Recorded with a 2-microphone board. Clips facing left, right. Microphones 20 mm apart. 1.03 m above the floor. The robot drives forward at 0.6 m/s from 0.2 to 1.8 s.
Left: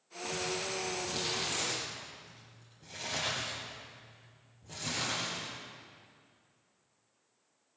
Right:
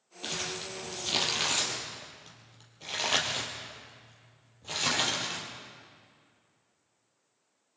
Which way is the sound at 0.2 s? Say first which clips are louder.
Even; 80° right.